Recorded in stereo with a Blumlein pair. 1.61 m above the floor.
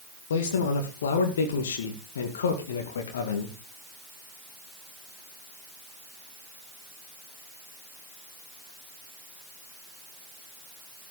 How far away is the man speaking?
About 2.5 m.